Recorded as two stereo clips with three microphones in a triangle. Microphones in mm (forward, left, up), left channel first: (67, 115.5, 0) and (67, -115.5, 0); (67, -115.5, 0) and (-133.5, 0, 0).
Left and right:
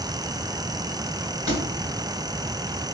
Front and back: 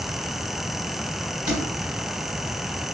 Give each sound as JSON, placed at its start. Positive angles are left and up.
{"t": 1.5, "sound": "a thud", "azimuth_deg": -160, "distance_m": 1.6}